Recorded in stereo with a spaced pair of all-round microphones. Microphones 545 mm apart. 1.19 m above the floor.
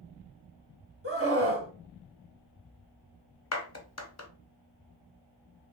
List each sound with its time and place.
1.0 s a scream: 25° right (ahead or behind), 0.9 m
3.5 s a clap: 30° left (ahead or behind), 0.6 m